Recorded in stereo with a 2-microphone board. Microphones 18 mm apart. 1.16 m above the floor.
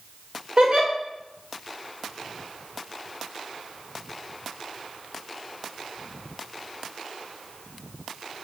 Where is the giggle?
55° right (ahead or behind), 0.9 m.